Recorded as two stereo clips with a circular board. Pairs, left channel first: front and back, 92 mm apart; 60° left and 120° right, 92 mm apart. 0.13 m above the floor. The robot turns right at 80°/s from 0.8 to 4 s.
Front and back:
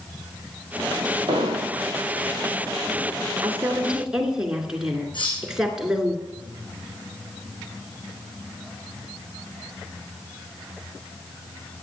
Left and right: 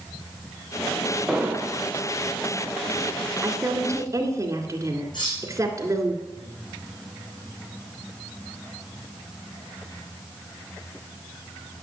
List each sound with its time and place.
1.3 s an explosion: 155° left, 2.5 m; by 1.8 s 160° right, 2.5 m
3.4 s a woman speaking: 150° right, 2.0 m; by 6.1 s 105° right, 2.0 m
5.1 s cutlery clinking: 25° left, 5 m